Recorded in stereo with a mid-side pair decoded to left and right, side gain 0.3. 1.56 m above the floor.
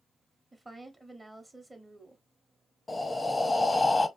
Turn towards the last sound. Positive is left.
turn(degrees=25)